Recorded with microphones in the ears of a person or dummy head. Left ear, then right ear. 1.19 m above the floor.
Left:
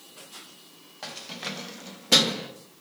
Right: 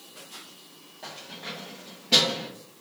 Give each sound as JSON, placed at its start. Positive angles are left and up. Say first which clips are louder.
{"t": 1.0, "sound": "keys jangling", "louder": "left 3 dB", "side_deg": 55, "distance_m": 0.8}